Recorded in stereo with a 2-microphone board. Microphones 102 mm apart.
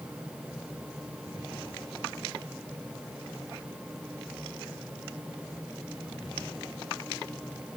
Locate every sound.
Only background noise.